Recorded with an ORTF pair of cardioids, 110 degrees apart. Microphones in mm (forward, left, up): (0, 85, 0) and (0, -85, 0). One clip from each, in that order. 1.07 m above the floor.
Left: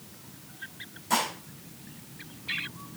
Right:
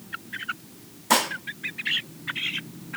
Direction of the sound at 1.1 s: 60° right.